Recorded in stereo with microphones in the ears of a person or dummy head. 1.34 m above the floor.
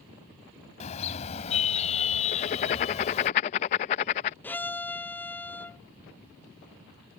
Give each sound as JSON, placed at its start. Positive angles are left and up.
{"t": 0.8, "sound": "a car horn", "side_deg": 40}
{"t": 2.3, "sound": "writing", "side_deg": 30}
{"t": 4.4, "sound": "a violin", "side_deg": 15}